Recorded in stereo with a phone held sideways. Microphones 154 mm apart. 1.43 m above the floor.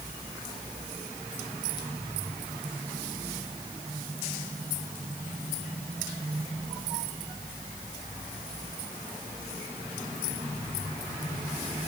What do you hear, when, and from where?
Only background noise.